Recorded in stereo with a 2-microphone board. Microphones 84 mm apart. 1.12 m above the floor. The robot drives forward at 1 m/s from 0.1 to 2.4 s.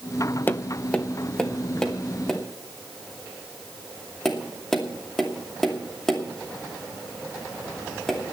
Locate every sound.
0.5 s tapping: 25° left (ahead or behind), 0.7 m; by 8.2 s 5° left (ahead or behind), 2.5 m